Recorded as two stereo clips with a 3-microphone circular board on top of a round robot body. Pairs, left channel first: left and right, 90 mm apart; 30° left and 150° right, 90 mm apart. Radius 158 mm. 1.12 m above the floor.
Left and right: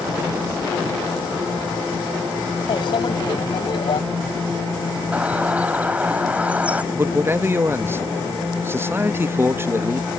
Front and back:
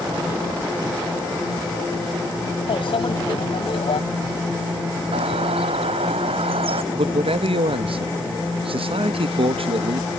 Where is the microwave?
55° left.